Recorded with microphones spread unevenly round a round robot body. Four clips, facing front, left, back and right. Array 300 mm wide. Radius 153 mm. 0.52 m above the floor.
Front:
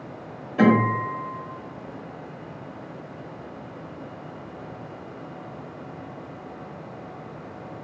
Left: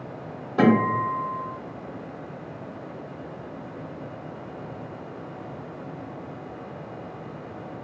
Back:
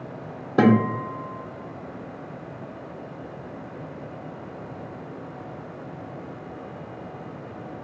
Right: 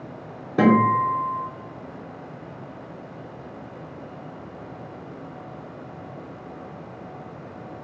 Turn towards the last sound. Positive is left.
turn(degrees=-160)